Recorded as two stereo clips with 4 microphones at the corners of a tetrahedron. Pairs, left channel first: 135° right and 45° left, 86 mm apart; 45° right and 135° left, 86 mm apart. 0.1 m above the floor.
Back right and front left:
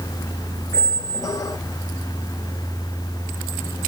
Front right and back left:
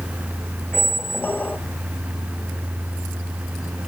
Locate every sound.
0.7 s a squeak: 105° right, 0.9 m